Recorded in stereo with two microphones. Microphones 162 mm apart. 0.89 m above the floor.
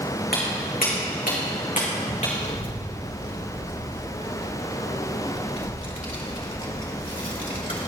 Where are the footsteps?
70° left (ahead or behind), 3 m; by 2.3 s 45° left (ahead or behind), 3.5 m.